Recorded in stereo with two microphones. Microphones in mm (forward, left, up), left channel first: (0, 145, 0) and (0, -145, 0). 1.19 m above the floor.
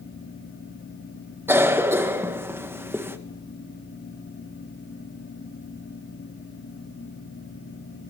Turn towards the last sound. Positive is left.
turn(degrees=-10)  # may be behind; listen again after turning